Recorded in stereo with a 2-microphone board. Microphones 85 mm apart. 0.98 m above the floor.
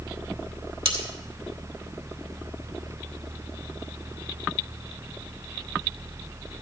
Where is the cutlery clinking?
85° right, 1.6 m.